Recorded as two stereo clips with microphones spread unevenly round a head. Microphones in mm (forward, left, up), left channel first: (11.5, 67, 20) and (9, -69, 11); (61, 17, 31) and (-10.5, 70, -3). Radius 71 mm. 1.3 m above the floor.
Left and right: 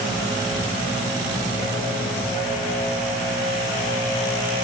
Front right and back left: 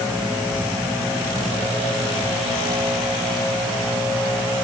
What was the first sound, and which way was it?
Only background noise.